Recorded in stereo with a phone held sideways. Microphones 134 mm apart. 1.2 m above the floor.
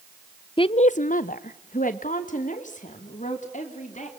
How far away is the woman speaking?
About 0.5 m.